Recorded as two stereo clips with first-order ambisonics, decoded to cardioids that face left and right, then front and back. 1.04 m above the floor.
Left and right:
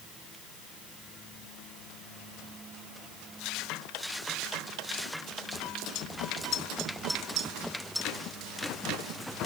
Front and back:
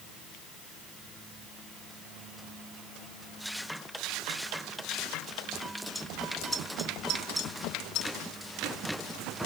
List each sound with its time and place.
Only background noise.